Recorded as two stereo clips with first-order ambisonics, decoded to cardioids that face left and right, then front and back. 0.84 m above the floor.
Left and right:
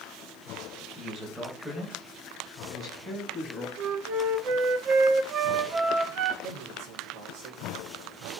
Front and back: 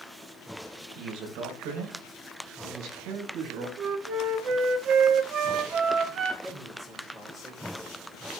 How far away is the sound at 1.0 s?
About 4 m.